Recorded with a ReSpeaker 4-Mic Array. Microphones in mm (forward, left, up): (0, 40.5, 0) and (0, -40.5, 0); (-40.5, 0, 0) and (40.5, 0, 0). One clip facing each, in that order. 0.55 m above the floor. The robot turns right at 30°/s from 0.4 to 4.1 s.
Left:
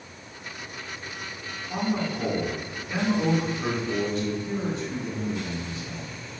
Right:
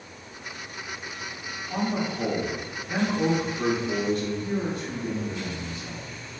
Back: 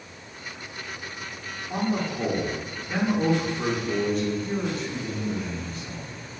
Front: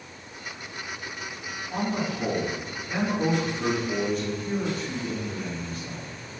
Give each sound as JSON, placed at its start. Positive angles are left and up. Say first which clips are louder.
{"t": 1.7, "sound": "a man speaking", "louder": "even, back 2 dB", "azimuth_deg": -160, "distance_m": 1.0}